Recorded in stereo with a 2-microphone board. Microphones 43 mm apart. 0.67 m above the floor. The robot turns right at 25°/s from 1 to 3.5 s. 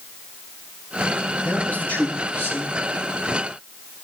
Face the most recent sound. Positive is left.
turn(degrees=80)